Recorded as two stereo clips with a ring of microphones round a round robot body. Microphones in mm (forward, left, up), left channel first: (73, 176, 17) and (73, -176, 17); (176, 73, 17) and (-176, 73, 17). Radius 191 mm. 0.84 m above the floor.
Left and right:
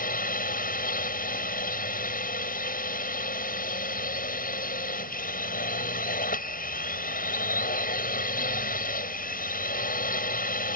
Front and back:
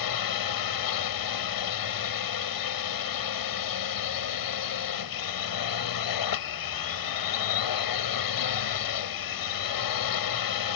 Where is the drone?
25° left.